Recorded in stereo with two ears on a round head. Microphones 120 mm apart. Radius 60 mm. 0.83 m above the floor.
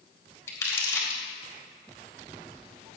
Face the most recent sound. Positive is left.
turn(degrees=20)  # may be behind; listen again after turning